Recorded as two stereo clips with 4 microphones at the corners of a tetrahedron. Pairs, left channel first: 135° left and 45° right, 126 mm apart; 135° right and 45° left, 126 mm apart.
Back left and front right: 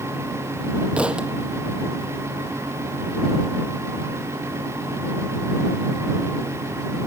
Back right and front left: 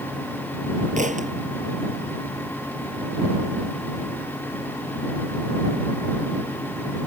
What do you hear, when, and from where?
1.0 s a thud: 35° left